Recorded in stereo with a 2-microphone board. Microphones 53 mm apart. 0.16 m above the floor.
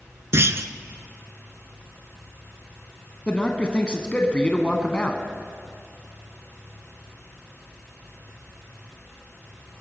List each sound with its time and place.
0.3 s a clunk: 55° right (ahead or behind), 0.6 m
3.3 s a man speaking: 20° left (ahead or behind), 1.0 m